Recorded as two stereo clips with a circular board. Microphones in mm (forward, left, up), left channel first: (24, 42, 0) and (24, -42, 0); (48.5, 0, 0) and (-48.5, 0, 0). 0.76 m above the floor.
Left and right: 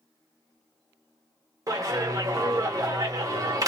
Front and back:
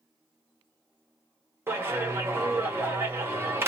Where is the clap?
120° right, 0.9 m.